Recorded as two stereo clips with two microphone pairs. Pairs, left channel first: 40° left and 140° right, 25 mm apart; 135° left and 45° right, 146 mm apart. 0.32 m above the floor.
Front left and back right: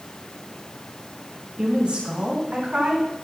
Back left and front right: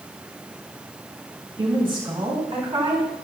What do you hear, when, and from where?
1.6 s a woman speaking: 95° right, 2.5 m